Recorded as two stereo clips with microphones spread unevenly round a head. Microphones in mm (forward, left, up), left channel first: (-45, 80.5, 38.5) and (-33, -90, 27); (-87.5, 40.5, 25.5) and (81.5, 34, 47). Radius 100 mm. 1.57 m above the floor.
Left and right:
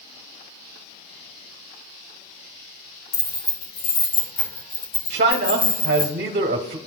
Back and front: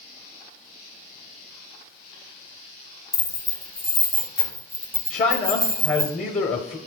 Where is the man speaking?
120° right, 0.7 m.